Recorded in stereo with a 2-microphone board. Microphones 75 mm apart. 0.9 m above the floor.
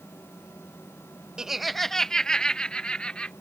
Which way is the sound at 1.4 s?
10° right (ahead or behind).